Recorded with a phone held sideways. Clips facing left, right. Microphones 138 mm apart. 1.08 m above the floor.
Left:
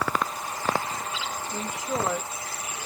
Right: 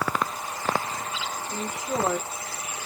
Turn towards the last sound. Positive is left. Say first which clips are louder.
# right 1 dB
turn(degrees=-30)  # may be behind; listen again after turning